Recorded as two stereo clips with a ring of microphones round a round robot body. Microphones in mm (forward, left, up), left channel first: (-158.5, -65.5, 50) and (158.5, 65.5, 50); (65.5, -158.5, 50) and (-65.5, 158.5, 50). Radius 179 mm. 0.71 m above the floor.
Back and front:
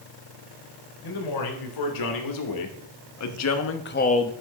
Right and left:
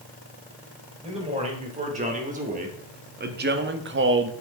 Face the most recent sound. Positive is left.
turn(degrees=130)